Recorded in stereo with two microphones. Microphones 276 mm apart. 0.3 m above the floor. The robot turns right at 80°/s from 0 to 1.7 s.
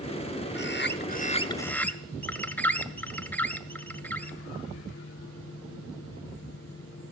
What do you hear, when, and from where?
0.6 s a bird: 80° left, 0.6 m; by 4.4 s 170° left, 0.6 m